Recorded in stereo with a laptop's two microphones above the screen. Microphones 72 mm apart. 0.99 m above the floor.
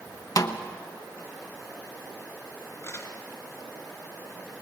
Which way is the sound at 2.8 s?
45° left (ahead or behind).